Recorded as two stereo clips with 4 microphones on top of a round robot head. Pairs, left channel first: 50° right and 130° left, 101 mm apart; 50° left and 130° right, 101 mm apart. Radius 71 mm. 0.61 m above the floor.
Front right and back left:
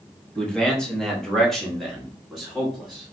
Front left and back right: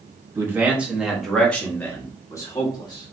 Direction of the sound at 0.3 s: 120° right.